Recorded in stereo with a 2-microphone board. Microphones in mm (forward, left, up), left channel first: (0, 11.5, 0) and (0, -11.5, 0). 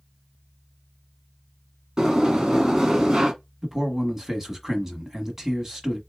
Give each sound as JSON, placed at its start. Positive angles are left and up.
{"t": 2.0, "sound": "a sliding door", "side_deg": -25, "distance_m": 1.6}
{"t": 3.6, "sound": "a man speaking", "side_deg": -15, "distance_m": 1.0}